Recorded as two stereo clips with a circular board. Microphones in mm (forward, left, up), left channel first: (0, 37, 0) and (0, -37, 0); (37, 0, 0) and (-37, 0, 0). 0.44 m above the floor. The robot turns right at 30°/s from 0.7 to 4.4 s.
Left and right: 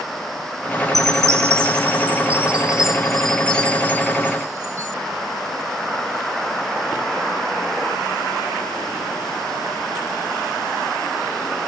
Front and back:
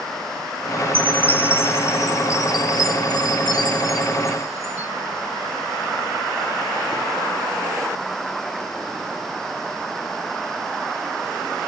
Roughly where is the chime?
Ahead right.